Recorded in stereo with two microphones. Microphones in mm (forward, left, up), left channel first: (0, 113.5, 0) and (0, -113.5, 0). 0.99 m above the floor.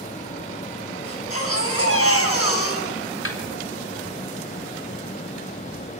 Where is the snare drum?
65° left (ahead or behind), 3.5 m.